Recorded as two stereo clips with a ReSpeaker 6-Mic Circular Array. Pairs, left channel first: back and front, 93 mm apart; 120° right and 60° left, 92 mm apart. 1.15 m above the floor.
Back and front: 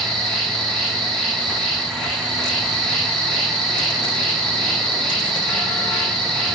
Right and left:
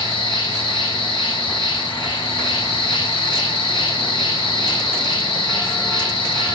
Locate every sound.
0.0 s an insect: 95° right, 1.5 m